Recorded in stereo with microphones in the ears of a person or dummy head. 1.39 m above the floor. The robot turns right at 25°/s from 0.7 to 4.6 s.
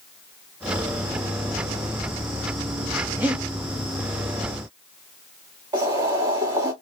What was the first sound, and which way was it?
Breathing, 15° right (ahead or behind).